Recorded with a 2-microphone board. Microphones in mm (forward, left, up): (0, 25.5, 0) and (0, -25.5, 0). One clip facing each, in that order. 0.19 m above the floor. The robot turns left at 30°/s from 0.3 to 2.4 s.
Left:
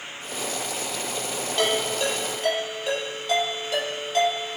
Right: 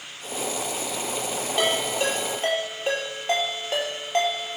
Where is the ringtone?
15° right (ahead or behind), 3.5 m; by 4.6 s 40° right (ahead or behind), 3.5 m.